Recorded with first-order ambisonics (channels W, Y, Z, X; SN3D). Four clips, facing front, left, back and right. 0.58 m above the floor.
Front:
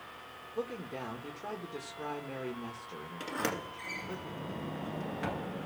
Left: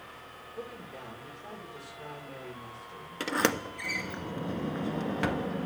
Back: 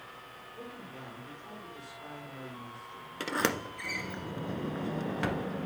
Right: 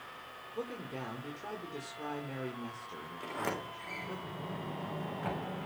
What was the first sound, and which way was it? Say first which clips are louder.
A man speaking: right 3 dB, front 9 dB; 25° right.